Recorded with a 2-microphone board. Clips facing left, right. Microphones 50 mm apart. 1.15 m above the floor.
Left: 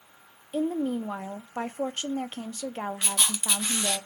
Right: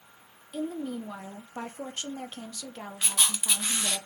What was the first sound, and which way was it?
A woman speaking, 35° left (ahead or behind).